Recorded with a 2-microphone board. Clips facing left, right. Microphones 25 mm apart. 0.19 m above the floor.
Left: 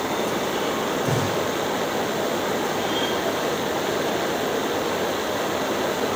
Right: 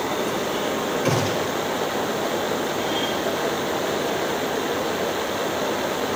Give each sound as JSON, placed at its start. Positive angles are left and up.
{"t": 1.1, "sound": "a gunshot", "side_deg": -60, "distance_m": 2.5}